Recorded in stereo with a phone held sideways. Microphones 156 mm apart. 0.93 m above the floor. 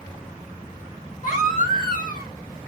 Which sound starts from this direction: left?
A baby crying, at 1.2 s.